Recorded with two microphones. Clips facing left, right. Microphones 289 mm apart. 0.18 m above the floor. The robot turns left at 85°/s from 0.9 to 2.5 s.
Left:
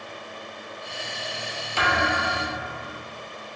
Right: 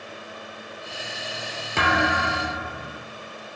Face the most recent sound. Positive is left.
turn(degrees=-125)